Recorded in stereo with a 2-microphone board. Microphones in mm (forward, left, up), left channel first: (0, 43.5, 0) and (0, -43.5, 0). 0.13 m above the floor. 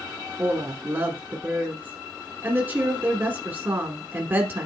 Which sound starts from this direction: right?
A woman speaking, at 0.4 s.